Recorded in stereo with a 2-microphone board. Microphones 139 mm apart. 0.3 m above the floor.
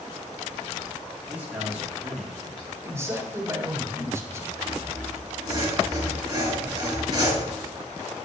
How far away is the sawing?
About 5 m.